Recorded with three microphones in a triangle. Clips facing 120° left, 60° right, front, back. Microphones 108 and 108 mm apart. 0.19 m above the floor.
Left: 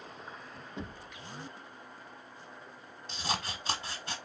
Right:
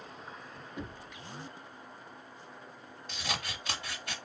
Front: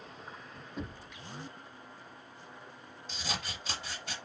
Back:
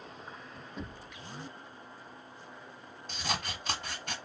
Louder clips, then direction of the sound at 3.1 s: Left 3 dB, back 4 dB; 175° left.